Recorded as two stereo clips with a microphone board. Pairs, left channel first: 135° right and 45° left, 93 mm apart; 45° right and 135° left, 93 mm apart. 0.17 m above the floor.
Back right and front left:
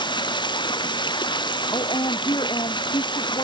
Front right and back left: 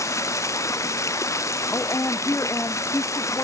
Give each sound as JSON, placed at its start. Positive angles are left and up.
{"t": 0.0, "sound": "running water", "azimuth_deg": -100}
{"t": 1.7, "sound": "a woman speaking", "azimuth_deg": -105}